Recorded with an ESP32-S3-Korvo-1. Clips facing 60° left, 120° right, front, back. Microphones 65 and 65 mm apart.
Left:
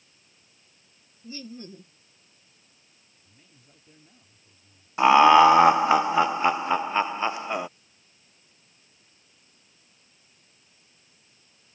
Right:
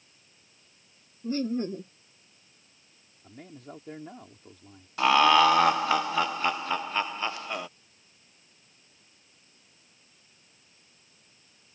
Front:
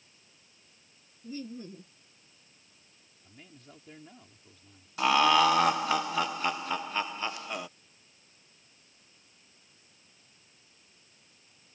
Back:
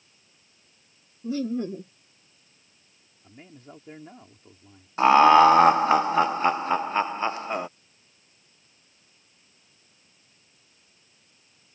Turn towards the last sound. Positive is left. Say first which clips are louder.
# left 6 dB, back 9 dB
turn(degrees=125)